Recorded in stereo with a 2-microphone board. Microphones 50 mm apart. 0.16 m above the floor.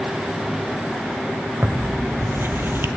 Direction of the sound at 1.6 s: 50° right (ahead or behind).